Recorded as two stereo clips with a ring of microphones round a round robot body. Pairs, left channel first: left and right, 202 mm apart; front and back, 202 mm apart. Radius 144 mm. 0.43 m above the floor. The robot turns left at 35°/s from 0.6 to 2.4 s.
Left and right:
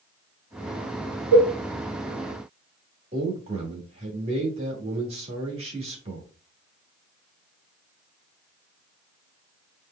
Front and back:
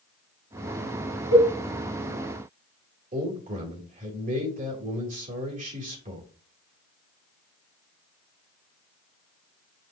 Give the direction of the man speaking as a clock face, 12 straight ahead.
5 o'clock.